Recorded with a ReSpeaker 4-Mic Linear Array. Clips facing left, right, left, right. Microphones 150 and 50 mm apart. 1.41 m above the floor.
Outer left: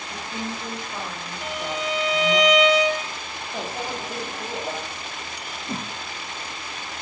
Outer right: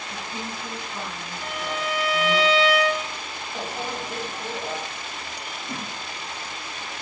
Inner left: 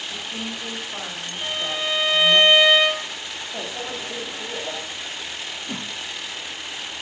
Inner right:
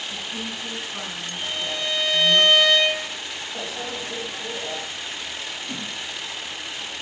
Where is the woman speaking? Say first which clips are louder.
Outer left 3 dB, even; 65° left (ahead or behind), 3 m.